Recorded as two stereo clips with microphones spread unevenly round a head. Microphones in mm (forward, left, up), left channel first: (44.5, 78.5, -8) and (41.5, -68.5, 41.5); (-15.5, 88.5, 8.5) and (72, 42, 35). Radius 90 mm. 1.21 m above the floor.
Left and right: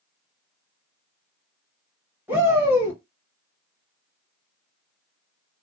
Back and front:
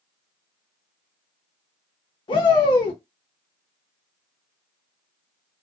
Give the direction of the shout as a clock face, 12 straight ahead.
6 o'clock.